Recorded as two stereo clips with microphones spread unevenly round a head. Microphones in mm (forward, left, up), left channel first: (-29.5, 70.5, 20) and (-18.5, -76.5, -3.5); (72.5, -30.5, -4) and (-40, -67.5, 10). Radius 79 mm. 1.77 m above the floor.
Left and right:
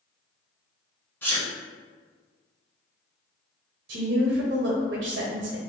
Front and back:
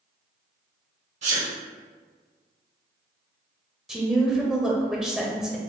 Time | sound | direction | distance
1.2 | a sneeze | 165° left | 0.8 m
3.9 | a woman speaking | 75° right | 0.7 m